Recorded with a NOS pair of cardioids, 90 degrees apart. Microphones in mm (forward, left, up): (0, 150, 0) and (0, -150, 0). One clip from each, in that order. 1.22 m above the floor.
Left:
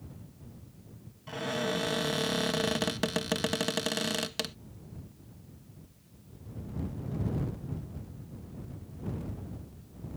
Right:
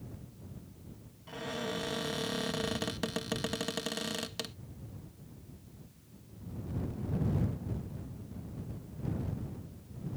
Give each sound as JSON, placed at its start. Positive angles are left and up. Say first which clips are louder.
{"t": 1.3, "sound": "a cupboard door", "louder": "left 5 dB", "azimuth_deg": 30}